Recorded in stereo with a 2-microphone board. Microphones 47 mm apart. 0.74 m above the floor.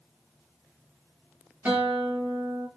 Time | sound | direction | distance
1.6 | a guitar | 40° right (ahead or behind) | 1.5 m